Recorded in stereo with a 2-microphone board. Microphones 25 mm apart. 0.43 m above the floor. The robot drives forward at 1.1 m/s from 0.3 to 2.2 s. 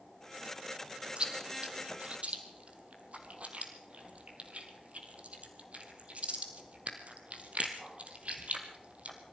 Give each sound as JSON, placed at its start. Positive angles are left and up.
{"t": 1.2, "sound": "chewing", "side_deg": -40, "distance_m": 3.0}